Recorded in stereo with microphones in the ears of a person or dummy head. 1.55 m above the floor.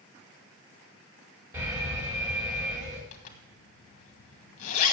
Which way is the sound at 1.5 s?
15° right (ahead or behind).